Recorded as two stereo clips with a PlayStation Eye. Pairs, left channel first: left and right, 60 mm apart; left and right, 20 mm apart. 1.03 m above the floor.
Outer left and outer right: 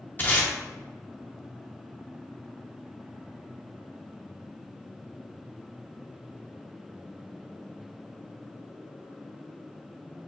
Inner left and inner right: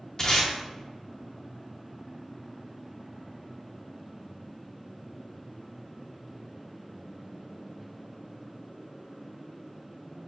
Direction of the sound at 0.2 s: 30° left (ahead or behind).